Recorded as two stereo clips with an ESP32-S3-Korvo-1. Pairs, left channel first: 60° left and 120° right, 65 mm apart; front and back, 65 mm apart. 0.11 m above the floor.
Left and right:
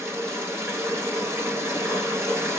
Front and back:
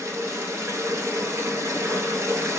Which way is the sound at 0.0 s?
155° right.